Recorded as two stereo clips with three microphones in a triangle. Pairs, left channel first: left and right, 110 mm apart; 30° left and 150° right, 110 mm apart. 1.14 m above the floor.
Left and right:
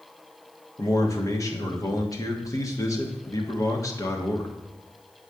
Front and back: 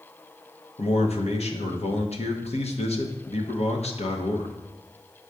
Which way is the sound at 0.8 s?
30° left.